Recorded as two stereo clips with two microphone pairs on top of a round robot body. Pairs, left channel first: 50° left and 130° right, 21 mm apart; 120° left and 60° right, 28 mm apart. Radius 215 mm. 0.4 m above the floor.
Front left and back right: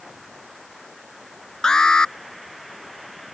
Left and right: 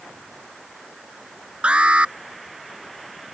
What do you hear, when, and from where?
1.6 s an alarm: 10° right